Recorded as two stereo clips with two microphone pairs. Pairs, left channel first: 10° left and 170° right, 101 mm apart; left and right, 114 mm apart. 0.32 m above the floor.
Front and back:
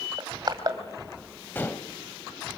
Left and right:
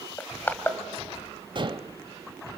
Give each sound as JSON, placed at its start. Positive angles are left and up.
{"t": 0.2, "sound": "crushing", "azimuth_deg": 160, "distance_m": 2.0}
{"t": 1.6, "sound": "dishes clattering", "azimuth_deg": -55, "distance_m": 0.9}